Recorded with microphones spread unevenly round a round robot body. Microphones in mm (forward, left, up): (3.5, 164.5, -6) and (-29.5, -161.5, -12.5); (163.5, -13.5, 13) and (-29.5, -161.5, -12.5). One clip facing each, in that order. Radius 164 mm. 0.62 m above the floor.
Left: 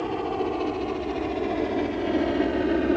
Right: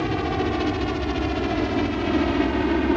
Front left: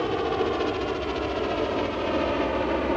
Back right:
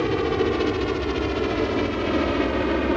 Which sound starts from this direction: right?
A helicopter, at 0.0 s.